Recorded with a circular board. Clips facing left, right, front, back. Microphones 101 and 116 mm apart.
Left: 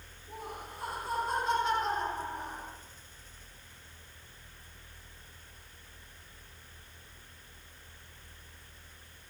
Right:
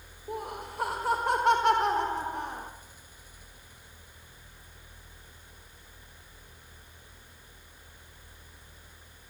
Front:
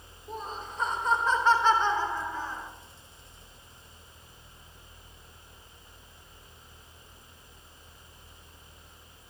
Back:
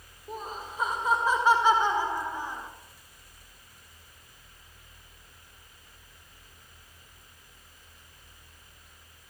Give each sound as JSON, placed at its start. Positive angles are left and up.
{"t": 0.3, "sound": "laughter", "azimuth_deg": -95, "distance_m": 5.5}